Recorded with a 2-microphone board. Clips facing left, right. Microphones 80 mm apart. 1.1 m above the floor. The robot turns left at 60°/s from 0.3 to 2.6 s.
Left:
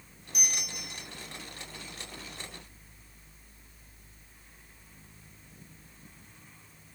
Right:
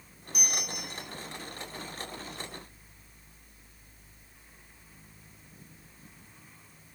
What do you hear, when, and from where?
0.3 s a bell: 75° left, 1.0 m; by 1.1 s 30° left, 1.0 m